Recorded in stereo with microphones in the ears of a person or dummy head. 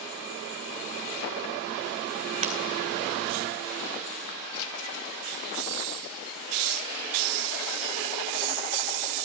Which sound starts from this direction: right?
Breaking glass, at 2.4 s.